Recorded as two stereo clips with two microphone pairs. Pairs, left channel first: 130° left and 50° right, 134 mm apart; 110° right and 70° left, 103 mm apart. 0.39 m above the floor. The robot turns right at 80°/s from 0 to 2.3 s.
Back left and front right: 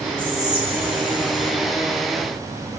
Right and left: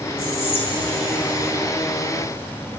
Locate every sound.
0.2 s whispering: 85° right, 1.1 m; by 1.5 s 25° left, 1.1 m